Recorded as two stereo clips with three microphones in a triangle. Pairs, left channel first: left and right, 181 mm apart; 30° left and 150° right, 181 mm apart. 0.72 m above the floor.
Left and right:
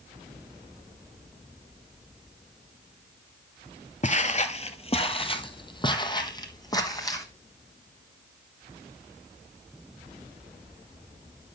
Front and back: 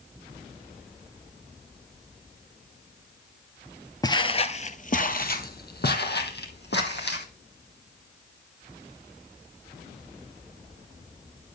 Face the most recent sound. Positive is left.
turn(degrees=20)